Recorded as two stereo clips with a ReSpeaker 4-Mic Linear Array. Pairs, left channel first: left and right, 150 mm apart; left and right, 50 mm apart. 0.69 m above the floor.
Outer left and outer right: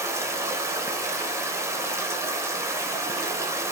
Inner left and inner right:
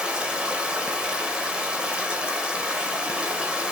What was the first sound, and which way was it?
Running water, 20° right (ahead or behind).